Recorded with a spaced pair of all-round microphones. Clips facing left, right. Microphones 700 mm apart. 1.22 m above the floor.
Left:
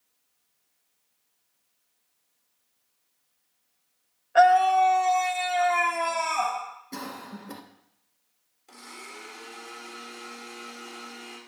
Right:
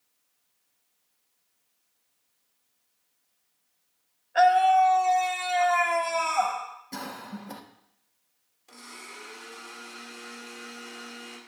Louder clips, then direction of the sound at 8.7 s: Left 2 dB; 10° right (ahead or behind).